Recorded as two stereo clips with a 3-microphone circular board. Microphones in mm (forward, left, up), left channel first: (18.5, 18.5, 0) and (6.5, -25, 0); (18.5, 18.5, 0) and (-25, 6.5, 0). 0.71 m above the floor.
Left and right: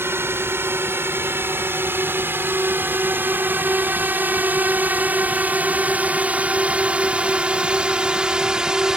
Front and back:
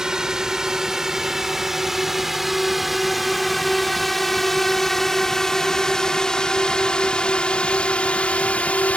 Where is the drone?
90° right; by 9.0 s 35° right.